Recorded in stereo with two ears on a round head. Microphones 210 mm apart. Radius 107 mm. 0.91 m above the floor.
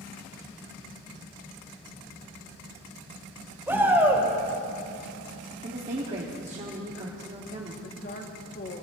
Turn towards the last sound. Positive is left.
turn(degrees=45)  # may be behind; listen again after turning